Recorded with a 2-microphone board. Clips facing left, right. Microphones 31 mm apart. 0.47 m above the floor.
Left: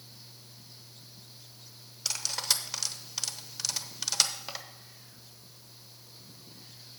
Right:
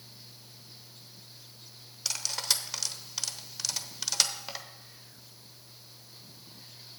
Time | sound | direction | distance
2.0 | cutlery clinking | centre (ahead or behind) | 0.8 m